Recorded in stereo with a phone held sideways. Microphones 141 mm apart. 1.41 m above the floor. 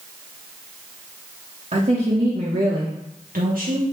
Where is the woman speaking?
60° right (ahead or behind), 1.5 m; by 3.8 s 70° right (ahead or behind), 1.4 m.